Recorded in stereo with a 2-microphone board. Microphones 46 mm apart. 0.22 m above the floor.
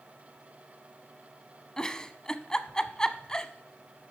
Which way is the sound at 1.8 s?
15° left (ahead or behind).